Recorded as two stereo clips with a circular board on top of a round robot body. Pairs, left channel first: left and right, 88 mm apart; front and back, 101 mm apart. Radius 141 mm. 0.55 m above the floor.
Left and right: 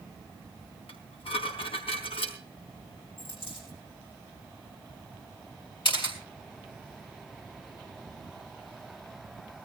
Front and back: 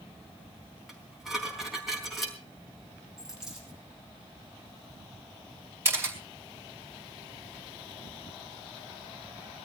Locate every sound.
0.9 s dishes clattering: 90° left, 4 m
3.2 s a dropped coin: 95° left, 10 m
5.8 s a camera shutter: 115° left, 4.5 m